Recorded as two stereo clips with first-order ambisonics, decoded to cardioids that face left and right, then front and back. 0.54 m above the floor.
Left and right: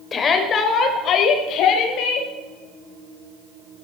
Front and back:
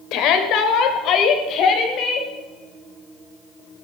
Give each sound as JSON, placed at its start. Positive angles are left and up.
{"t": 0.1, "sound": "a shout", "azimuth_deg": 25, "distance_m": 1.9}